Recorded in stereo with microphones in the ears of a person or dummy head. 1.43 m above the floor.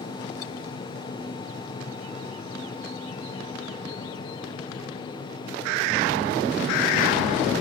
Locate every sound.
0.0 s a fan: 30° left (ahead or behind), 1.0 m